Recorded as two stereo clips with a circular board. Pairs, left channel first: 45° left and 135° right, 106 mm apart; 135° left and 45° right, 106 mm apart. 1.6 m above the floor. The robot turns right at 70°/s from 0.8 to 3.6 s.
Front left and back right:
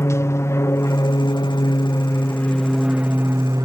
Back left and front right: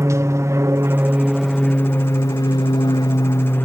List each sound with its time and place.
0.0 s an aircraft: straight ahead; by 3.7 s 165° right